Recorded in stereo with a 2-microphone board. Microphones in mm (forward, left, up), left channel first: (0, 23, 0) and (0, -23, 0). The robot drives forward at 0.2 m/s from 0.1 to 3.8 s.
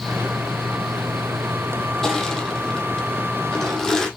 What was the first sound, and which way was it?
Crushing, 10° left (ahead or behind).